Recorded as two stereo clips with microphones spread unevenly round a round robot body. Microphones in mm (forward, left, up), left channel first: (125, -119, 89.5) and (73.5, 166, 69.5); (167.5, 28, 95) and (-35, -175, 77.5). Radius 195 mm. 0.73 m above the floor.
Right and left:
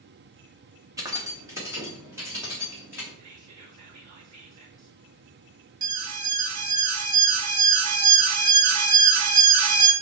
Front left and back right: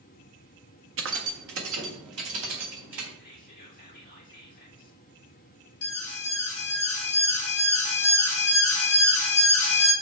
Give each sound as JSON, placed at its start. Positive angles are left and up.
{"t": 1.0, "sound": "keys jangling", "azimuth_deg": 180, "distance_m": 0.8}
{"t": 3.2, "sound": "whispering", "azimuth_deg": 105, "distance_m": 2.5}
{"t": 5.8, "sound": "an alarm", "azimuth_deg": 85, "distance_m": 1.1}